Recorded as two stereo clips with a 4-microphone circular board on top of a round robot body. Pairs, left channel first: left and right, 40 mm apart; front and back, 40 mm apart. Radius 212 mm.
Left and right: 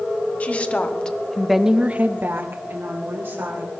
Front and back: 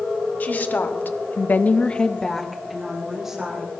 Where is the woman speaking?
40° left, 2.5 m; by 3.7 s 105° right, 3.5 m.